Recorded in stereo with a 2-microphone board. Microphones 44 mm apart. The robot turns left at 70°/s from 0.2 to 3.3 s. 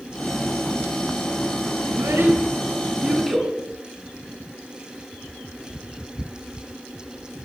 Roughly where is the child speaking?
Right.